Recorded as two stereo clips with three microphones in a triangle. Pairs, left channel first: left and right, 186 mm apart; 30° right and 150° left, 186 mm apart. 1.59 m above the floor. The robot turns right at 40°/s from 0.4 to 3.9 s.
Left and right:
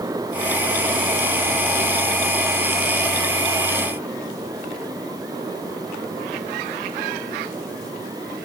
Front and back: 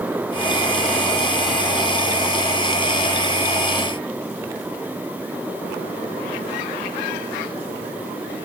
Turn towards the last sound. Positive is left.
No sound to turn to.